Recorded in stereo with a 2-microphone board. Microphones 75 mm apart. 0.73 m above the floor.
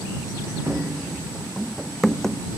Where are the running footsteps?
20° right (ahead or behind); by 2.4 s 10° left (ahead or behind).